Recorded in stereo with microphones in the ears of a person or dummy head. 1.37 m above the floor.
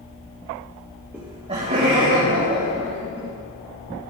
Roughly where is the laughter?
Centre.